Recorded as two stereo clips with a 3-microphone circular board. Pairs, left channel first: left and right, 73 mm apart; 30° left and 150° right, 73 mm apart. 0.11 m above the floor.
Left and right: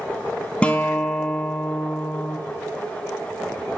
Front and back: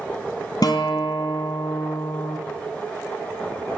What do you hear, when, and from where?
0.6 s a guitar: 20° left, 1.2 m